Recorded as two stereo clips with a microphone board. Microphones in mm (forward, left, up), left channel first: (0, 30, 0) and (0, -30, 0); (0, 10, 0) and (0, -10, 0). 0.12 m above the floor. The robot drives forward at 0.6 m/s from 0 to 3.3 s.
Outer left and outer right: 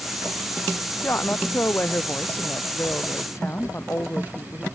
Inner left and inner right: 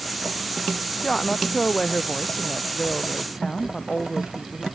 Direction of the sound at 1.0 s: 35° left (ahead or behind).